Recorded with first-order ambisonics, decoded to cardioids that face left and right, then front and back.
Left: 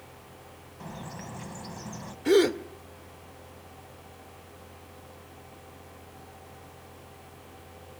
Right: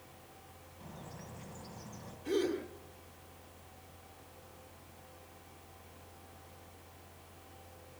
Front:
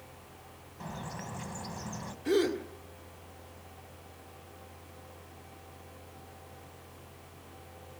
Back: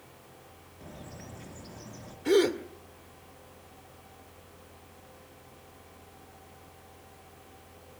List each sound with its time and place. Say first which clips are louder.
0.8 s a bird: left 10 dB, front 6 dB; 30° left, 1.6 m
2.2 s a gasp: left 12 dB, back 4 dB; 110° left, 1.3 m